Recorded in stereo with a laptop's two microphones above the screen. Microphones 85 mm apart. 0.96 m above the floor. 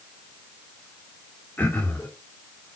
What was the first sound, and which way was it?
Throat clearing, 15° left (ahead or behind).